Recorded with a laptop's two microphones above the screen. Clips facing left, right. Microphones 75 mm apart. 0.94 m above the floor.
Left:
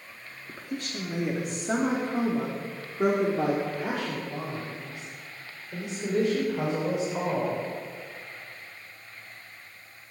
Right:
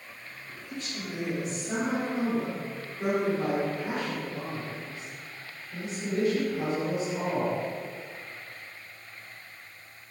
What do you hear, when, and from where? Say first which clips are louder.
0.5 s a woman speaking: left 4 dB; 55° left (ahead or behind), 2 m; by 7.6 s 60° left (ahead or behind), 4.5 m